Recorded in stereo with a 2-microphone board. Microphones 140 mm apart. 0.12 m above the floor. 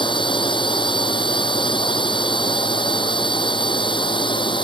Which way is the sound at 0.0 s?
35° left (ahead or behind).